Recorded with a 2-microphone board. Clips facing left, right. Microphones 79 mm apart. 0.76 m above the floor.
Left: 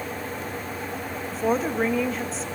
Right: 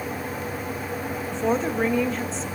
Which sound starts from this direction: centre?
A woman speaking, at 1.3 s.